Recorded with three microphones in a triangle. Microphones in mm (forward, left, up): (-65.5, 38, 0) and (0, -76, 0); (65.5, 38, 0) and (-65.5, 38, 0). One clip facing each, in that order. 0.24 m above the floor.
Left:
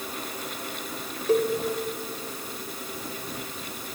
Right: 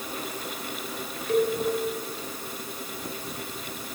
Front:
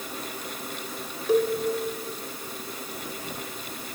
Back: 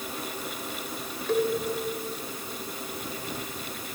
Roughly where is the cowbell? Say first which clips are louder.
Left 1 dB, front 3 dB; left.